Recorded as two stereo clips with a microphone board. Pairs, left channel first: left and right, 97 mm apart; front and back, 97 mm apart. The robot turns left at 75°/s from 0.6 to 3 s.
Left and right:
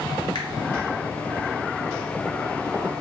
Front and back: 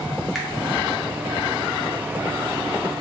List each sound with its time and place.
0.3 s a finger snap: 95° left, 0.8 m